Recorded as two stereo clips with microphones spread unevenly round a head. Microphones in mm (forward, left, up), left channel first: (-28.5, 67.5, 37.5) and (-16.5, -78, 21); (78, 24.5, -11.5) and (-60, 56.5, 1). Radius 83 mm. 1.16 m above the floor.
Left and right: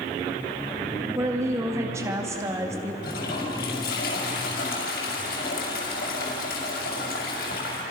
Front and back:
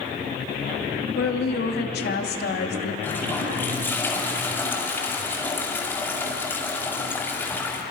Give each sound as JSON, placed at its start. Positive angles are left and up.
{"t": 1.1, "sound": "a woman speaking", "azimuth_deg": -15, "distance_m": 2.5}
{"t": 3.0, "sound": "a toilet flushing", "azimuth_deg": 60, "distance_m": 5.5}